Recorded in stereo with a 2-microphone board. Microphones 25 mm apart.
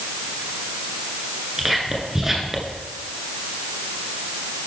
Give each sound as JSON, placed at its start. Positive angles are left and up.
{"t": 1.6, "sound": "whispering", "side_deg": -10, "distance_m": 1.9}